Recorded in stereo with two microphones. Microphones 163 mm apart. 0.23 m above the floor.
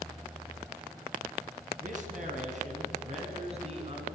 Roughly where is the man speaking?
Right.